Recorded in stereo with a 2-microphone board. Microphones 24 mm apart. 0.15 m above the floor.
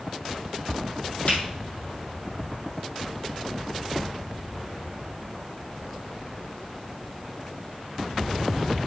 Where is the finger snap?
70° left (ahead or behind), 5 m.